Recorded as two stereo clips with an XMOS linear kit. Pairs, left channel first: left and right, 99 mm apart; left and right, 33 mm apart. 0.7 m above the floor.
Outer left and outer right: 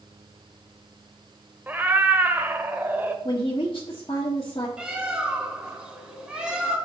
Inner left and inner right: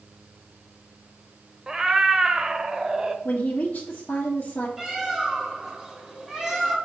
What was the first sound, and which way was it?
A cat meowing, 20° right (ahead or behind).